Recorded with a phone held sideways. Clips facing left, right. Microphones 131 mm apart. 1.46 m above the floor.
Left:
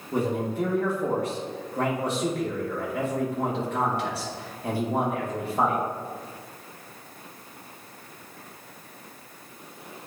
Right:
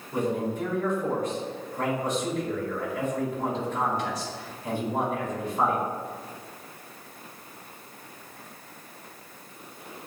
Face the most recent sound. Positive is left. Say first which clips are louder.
# left 1 dB
turn(degrees=65)  # may be behind; listen again after turning